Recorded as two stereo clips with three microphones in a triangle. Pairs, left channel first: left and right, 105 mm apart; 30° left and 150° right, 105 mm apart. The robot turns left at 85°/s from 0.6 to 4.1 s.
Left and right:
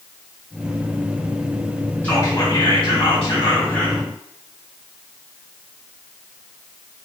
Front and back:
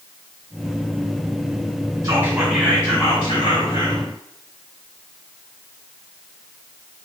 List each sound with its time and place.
2.0 s whispering: 160° left, 1.8 m; by 4.0 s 5° right, 1.8 m